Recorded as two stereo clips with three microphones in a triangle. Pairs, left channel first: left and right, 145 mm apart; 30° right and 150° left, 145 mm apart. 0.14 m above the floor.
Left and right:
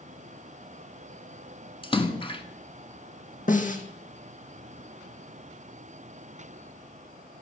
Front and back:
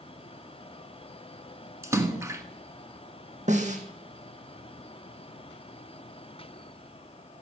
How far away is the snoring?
No snoring in this recording.